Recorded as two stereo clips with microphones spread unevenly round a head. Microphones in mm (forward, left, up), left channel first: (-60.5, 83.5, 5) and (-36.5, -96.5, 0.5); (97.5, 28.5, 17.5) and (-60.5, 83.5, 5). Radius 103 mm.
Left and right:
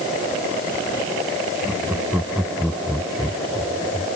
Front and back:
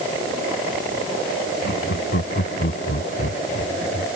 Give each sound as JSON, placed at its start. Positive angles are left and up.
{"t": 1.6, "sound": "laughter", "azimuth_deg": 0}